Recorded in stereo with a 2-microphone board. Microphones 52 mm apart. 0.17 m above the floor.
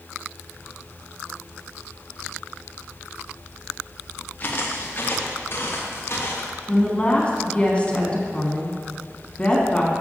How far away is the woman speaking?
About 1.5 m.